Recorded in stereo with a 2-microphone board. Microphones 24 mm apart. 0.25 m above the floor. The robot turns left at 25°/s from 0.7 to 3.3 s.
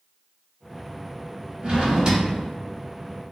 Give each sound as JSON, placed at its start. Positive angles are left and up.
{"t": 1.6, "sound": "a drawer", "side_deg": -35, "distance_m": 0.9}